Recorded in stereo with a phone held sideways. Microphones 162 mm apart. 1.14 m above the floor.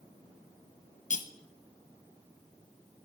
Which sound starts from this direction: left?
Cutlery clinking, at 1.1 s.